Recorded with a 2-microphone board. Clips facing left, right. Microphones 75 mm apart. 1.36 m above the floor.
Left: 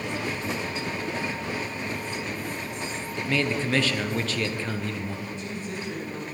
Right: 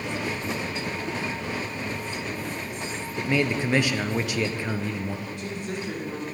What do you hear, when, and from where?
3.2 s a man speaking: 15° right (ahead or behind), 0.6 m
5.3 s a woman speaking: 65° right (ahead or behind), 3.5 m